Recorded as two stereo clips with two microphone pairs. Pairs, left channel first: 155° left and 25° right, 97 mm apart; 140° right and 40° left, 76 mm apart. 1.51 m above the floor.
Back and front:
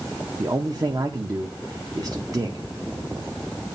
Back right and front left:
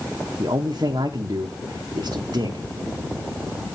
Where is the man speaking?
25° left, 1.3 m.